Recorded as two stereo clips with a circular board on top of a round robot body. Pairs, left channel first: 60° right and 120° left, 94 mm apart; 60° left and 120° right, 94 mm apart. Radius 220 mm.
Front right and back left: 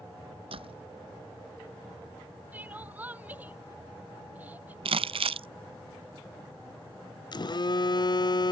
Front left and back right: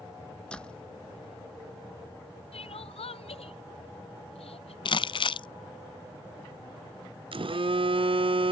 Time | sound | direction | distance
0.5 | a door slam | 140° left | ?
2.5 | crying | 45° left | ?
4.8 | crumpling | 95° left | ?
7.3 | a phone buzzing | 100° right | ?